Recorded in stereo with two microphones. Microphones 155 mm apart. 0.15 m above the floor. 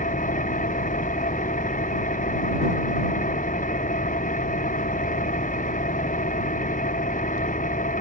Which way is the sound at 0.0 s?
55° left (ahead or behind).